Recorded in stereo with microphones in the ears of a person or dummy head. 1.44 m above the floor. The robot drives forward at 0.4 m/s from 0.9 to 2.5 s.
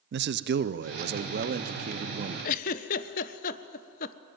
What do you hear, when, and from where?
0.1 s a man speaking: 50° right (ahead or behind), 0.6 m; by 2.3 s 30° right (ahead or behind), 1.0 m
2.4 s a giggle: 45° left (ahead or behind), 0.9 m